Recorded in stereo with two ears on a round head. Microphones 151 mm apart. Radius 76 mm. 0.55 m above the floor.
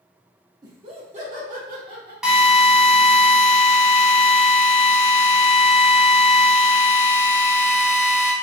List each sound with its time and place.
0.6 s laughter: 25° right (ahead or behind), 0.8 m; by 2.1 s 60° right (ahead or behind), 1.4 m
2.2 s a drill: 5° right (ahead or behind), 0.9 m